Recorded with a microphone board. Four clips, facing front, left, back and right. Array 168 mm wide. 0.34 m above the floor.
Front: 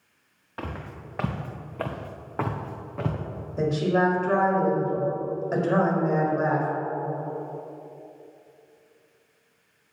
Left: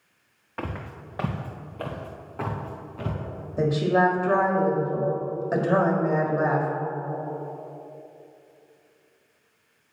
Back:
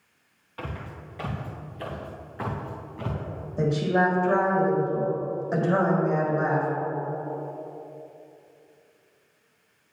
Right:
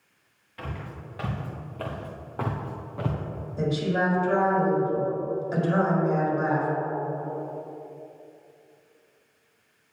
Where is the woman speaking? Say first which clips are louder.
Left 5 dB, even; 75° left, 1.6 m.